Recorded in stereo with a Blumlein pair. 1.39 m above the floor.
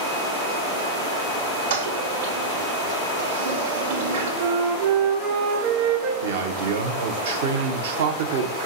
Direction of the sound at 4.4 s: 40° right.